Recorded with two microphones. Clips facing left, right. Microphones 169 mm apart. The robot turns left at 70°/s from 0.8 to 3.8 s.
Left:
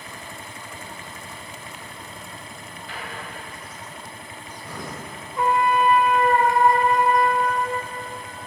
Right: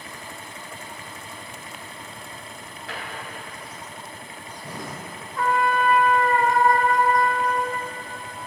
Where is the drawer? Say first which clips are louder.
Right 1 dB; 85° right, 1.1 m; by 5.0 s 30° right (ahead or behind), 1.1 m.